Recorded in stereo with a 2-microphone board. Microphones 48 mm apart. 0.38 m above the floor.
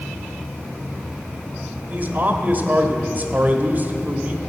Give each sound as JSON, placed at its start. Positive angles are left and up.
{"t": 1.9, "sound": "a man speaking", "side_deg": -40, "distance_m": 1.1}